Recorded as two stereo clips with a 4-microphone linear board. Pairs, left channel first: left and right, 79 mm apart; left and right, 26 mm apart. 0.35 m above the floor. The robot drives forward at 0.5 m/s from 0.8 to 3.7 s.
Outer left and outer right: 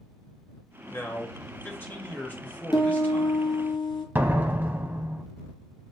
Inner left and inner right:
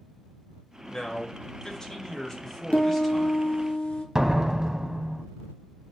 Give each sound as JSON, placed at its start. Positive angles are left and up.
{"t": 0.9, "sound": "a man speaking", "side_deg": 35, "distance_m": 1.1}
{"t": 2.7, "sound": "a piano", "side_deg": 65, "distance_m": 1.1}
{"t": 4.2, "sound": "a door slam", "side_deg": -25, "distance_m": 0.7}